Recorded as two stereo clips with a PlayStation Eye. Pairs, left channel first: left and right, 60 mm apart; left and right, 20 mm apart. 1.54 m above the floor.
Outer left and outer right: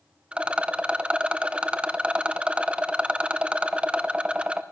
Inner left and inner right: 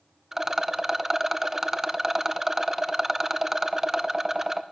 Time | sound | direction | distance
0.3 | a rattle | 20° right (ahead or behind) | 0.5 m